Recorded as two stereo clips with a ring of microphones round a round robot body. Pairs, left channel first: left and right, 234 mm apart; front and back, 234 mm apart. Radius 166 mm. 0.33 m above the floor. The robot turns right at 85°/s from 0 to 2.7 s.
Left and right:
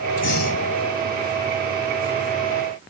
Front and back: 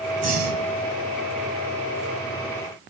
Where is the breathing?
120° left, 1.4 m; by 0.7 s 160° left, 1.4 m.